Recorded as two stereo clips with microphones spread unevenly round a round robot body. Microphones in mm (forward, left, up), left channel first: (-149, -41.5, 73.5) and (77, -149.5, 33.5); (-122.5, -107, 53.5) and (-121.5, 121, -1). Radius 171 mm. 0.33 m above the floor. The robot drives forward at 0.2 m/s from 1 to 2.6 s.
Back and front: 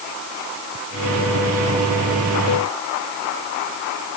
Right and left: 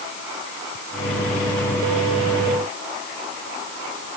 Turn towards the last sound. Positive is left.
No sound to turn to.